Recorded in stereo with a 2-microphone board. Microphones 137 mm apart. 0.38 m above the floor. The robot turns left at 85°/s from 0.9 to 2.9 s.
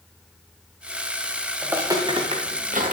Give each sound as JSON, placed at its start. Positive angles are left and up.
{"t": 1.6, "sound": "footsteps", "side_deg": -10, "distance_m": 1.9}